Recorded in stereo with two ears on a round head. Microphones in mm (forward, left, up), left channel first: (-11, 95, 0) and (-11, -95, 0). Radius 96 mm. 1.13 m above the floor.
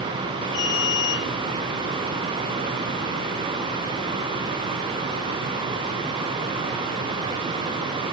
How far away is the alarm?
About 9.5 m.